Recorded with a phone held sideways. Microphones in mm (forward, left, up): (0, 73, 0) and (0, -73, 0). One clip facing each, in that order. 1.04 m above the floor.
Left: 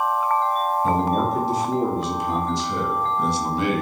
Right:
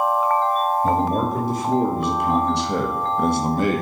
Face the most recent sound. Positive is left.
turn(degrees=-40)  # may be behind; listen again after turning